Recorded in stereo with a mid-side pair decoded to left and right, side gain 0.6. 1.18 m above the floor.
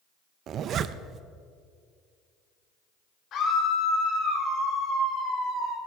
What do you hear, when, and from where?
0.5 s a zipper: 50° right, 0.6 m
3.3 s a scream: 55° left, 4.5 m